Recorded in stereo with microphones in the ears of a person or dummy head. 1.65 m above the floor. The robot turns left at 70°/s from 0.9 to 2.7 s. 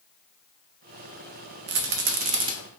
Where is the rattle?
75° right (ahead or behind), 0.6 m; by 2.5 s 20° right (ahead or behind), 0.6 m.